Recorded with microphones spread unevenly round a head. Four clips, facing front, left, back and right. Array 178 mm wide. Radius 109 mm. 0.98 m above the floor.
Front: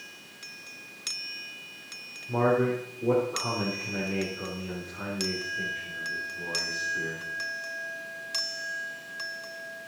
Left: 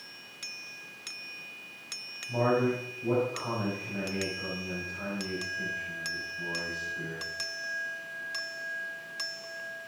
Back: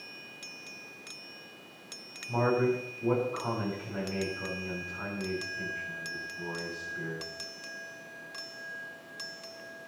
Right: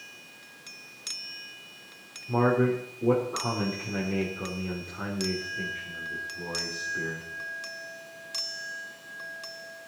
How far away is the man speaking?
About 3 m.